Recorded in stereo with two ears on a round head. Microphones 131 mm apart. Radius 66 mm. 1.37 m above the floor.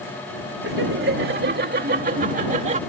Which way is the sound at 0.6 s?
85° right.